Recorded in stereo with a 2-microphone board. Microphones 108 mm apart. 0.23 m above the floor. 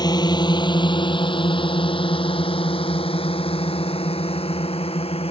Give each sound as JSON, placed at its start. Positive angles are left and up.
{"t": 0.0, "sound": "a drone", "side_deg": 40}